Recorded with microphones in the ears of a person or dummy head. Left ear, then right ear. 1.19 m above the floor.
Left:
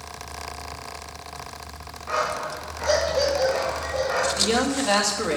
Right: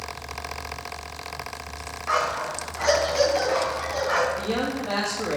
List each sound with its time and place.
2.1 s a dog barking: 55° right (ahead or behind), 3.5 m
4.4 s a man speaking: 70° left (ahead or behind), 2.5 m